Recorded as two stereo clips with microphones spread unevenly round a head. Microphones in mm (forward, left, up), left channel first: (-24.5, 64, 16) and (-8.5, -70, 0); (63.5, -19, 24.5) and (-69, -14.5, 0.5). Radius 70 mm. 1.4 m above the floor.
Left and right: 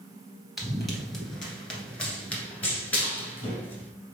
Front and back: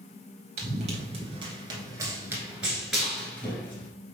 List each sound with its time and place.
0.6 s running footsteps: straight behind, 1.6 m; by 3.9 s 45° left, 1.7 m